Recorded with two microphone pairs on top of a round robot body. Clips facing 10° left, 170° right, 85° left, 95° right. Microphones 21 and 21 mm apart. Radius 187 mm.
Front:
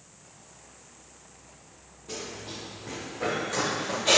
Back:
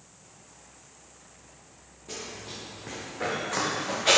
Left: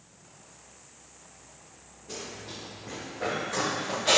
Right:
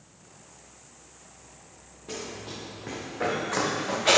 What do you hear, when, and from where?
2.1 s running footsteps: 90° right, 3 m; by 4.2 s 115° right, 3 m